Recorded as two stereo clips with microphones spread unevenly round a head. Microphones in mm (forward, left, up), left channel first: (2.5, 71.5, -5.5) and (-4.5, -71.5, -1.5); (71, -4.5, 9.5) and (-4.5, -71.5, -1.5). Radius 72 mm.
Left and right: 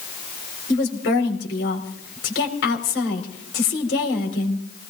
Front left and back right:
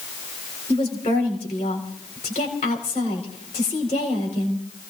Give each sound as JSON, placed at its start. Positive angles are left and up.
{"t": 0.7, "sound": "a woman speaking", "azimuth_deg": 85, "distance_m": 4.5}